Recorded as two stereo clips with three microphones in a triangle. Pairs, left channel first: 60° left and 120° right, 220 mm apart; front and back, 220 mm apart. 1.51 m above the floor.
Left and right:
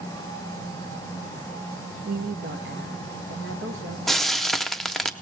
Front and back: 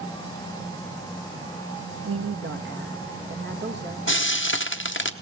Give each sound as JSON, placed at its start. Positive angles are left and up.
{"t": 2.0, "sound": "a woman speaking", "azimuth_deg": -170, "distance_m": 1.0}
{"t": 4.1, "sound": "frying", "azimuth_deg": -30, "distance_m": 0.9}